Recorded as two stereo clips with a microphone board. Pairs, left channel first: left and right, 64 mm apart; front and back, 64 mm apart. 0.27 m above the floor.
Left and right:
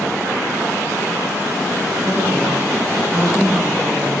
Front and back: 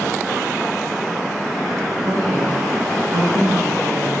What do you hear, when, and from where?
2.0 s a woman speaking: 160° right, 1.8 m; by 4.1 s 165° right, 3 m